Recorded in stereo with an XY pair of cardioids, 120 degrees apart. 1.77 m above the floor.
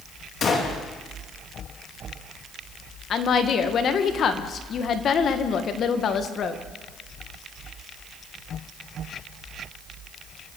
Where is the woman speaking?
50° left, 2 m.